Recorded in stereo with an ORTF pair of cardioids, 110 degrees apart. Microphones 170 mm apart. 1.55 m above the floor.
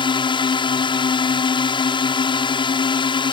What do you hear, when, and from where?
0.0 s a drone: 30° left